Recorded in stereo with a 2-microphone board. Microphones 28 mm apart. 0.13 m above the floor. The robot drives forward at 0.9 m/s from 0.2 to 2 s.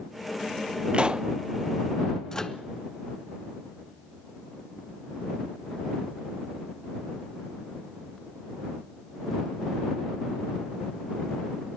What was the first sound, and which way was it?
A pop, 40° right (ahead or behind).